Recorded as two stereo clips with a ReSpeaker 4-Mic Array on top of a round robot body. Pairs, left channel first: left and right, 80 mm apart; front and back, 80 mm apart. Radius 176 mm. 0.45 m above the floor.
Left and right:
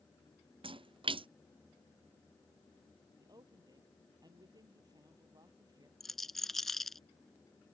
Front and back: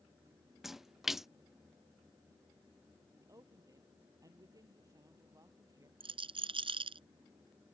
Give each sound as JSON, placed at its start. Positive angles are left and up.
{"t": 0.6, "sound": "a splash", "azimuth_deg": -95}
{"t": 3.2, "sound": "a woman speaking", "azimuth_deg": -135}
{"t": 6.0, "sound": "a rattle", "azimuth_deg": 175}